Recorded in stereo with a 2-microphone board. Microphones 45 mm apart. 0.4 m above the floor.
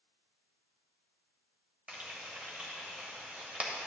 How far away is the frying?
About 1.6 m.